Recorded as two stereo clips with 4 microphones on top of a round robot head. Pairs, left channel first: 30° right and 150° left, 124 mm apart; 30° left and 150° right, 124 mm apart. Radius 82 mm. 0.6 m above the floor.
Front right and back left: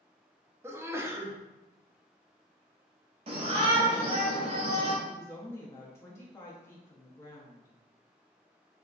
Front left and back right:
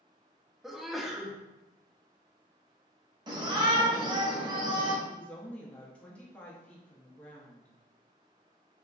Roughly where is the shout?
Behind.